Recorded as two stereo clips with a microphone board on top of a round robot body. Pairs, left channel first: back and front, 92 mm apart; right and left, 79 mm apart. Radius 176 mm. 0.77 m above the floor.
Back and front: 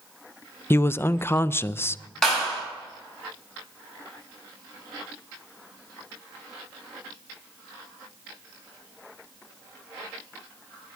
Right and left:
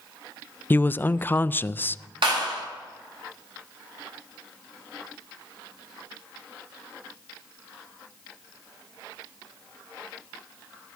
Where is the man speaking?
135° right, 0.5 m.